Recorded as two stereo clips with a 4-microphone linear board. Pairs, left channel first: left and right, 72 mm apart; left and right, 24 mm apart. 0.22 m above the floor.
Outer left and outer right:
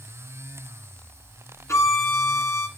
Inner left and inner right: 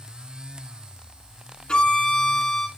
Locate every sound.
1.7 s a violin: 45° left (ahead or behind), 1.4 m